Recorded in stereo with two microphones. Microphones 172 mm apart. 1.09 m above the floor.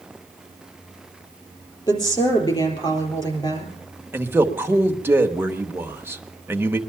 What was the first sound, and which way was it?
A woman speaking, 25° left (ahead or behind).